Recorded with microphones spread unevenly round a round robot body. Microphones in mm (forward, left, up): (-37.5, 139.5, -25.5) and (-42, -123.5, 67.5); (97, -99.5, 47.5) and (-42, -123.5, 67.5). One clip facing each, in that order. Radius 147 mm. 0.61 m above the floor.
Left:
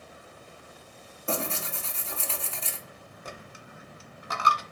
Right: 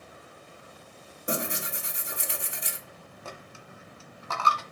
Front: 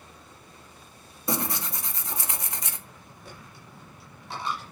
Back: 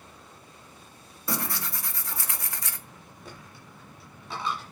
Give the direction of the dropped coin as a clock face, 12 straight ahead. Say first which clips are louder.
Even, even; 6 o'clock.